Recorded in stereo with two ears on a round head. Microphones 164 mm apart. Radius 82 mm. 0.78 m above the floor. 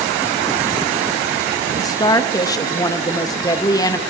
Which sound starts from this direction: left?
A woman speaking, at 1.8 s.